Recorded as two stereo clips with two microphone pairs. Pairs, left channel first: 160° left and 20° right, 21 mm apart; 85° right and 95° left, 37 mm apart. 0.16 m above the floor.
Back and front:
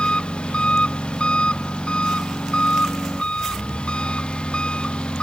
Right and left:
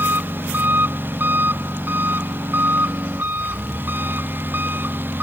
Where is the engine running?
125° left.